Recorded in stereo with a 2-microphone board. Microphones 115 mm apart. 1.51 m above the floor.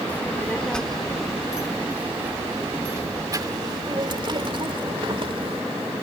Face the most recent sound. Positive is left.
turn(degrees=-55)  # may be behind; listen again after turning